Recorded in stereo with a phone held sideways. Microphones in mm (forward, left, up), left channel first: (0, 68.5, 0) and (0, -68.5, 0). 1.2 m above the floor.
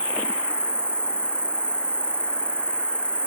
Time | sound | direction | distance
0.0 | an insect | 5° left (ahead or behind) | ?